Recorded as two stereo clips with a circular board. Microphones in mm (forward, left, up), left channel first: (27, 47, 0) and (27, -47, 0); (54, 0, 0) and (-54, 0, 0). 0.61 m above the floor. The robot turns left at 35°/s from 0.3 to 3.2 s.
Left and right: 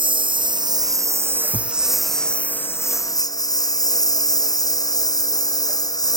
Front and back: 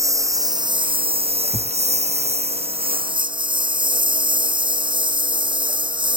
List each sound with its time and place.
0.0 s a lawn mower: 120° right; by 6.2 s 135° left
1.5 s a thud: 10° left; by 1.8 s straight ahead